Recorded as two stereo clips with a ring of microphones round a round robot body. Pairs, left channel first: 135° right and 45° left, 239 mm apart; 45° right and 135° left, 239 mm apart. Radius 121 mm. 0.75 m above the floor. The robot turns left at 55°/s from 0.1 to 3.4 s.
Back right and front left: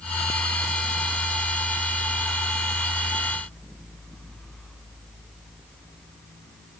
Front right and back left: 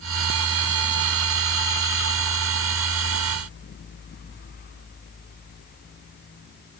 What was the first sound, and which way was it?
Only background noise.